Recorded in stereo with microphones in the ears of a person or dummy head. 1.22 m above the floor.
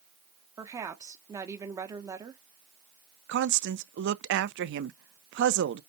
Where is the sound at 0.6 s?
15° right (ahead or behind), 1.3 m.